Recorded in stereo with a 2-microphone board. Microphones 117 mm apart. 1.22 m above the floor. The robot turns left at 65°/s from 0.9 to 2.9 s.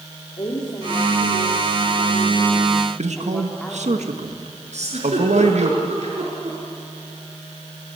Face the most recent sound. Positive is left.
turn(degrees=-70)  # may be behind; listen again after turning